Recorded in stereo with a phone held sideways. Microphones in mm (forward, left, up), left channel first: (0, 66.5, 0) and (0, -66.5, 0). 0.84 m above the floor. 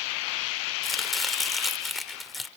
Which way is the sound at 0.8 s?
Centre (ahead or behind).